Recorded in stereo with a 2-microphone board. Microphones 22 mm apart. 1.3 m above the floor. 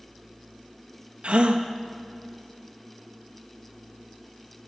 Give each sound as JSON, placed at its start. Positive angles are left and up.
{"t": 1.2, "sound": "a gasp", "side_deg": -65, "distance_m": 1.5}